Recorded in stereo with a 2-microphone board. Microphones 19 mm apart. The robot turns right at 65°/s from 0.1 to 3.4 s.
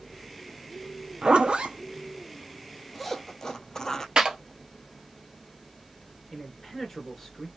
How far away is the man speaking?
About 1.7 m.